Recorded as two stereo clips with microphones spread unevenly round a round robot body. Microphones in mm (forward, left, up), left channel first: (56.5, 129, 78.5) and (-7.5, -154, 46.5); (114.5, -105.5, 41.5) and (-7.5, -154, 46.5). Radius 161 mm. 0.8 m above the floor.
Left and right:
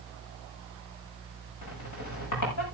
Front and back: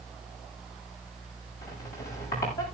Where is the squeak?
50° left, 6 m.